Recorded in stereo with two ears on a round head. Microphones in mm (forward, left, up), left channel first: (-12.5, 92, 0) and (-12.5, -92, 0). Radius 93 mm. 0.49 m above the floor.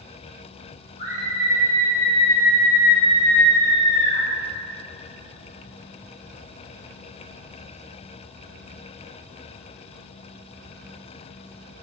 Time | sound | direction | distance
1.0 | a scream | 30° left (ahead or behind) | 3 m